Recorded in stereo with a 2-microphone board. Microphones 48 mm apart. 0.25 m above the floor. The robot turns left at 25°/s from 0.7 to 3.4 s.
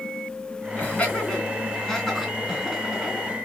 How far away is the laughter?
About 2.5 m.